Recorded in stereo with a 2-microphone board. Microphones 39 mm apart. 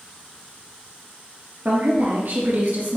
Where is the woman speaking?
60° right (ahead or behind), 3 m.